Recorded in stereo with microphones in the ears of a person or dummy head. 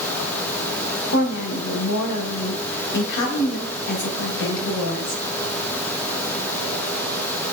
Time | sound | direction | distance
1.1 | a woman speaking | 65° left (ahead or behind) | 0.8 m